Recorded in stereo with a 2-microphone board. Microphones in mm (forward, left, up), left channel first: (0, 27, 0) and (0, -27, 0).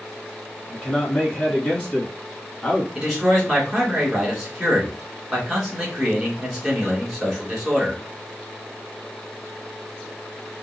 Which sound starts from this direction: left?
A man speaking, at 0.7 s.